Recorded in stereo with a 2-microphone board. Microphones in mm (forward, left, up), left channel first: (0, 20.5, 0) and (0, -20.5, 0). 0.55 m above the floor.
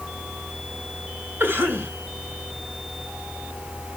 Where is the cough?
65° right (ahead or behind), 3 m.